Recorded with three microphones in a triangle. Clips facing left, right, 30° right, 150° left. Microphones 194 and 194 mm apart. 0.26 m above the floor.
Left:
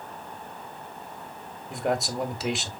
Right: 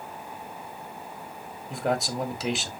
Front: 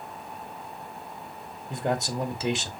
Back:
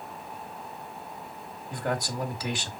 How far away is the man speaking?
About 1.6 m.